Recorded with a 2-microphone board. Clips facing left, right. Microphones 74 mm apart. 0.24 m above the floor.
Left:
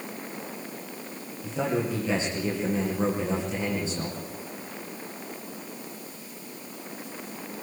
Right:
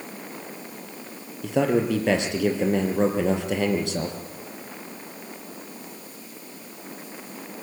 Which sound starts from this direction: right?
A man speaking, at 1.4 s.